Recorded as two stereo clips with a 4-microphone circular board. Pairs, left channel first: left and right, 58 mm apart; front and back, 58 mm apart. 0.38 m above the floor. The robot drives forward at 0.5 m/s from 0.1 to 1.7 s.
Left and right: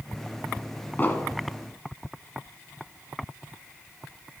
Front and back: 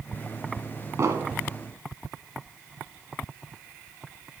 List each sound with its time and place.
1.0 s an explosion: 150° left, 1.5 m